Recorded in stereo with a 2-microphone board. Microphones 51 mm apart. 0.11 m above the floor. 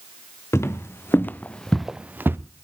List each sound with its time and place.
0.5 s footsteps: 60° left (ahead or behind), 2 m; by 2.4 s 50° right (ahead or behind), 1.1 m